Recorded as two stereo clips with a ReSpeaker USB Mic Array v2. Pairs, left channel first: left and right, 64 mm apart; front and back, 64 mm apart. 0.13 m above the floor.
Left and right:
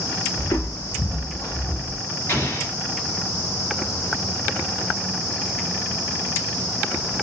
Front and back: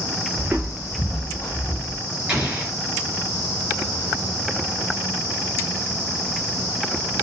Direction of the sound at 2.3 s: 105° left.